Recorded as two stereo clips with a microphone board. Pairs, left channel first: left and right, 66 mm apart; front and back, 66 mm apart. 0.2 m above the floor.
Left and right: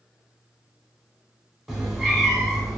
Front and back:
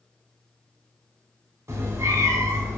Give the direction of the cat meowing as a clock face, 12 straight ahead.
6 o'clock.